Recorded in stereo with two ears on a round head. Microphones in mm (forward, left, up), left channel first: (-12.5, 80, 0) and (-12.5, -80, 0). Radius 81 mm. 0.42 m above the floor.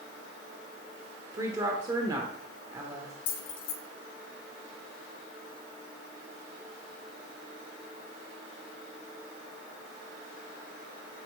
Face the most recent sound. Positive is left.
turn(degrees=75)  # may be behind; listen again after turning